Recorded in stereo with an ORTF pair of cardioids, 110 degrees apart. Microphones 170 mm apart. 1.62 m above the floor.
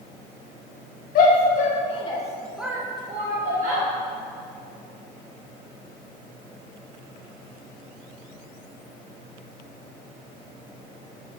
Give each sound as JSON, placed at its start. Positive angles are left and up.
{"t": 1.1, "sound": "a shout", "azimuth_deg": 55, "distance_m": 1.8}